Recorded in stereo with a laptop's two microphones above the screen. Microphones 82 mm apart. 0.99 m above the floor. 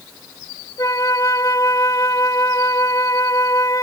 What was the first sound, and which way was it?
A flute, 50° left (ahead or behind).